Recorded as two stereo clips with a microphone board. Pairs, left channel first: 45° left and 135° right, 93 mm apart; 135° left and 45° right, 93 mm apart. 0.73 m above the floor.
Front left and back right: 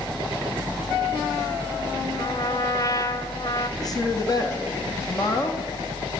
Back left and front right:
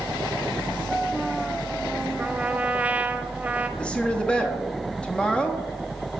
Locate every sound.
2.2 s a trumpet: 20° left, 0.6 m
3.8 s a woman speaking: 60° left, 1.2 m